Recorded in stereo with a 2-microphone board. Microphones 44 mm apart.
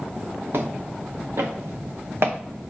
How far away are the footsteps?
About 2 m.